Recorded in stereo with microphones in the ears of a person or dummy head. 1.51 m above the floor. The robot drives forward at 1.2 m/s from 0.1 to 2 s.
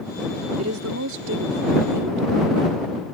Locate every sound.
0.6 s a woman speaking: 85° right; by 2.8 s 65° right (ahead or behind)